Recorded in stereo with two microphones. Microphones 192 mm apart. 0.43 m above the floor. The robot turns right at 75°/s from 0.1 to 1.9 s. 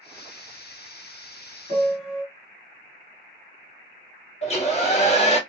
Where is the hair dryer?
35° left (ahead or behind), 1.1 m.